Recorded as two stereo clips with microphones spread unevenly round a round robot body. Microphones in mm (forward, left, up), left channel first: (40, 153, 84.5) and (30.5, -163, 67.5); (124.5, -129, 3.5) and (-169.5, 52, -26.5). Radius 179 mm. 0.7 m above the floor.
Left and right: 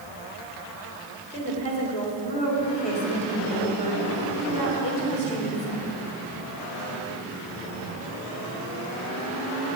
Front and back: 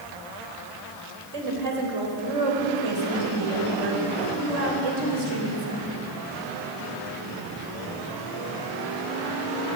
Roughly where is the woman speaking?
Behind.